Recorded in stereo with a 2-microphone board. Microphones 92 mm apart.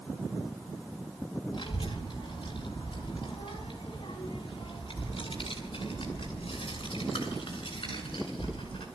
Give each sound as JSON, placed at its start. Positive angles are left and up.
{"t": 1.5, "sound": "a child speaking", "side_deg": 55, "distance_m": 4.5}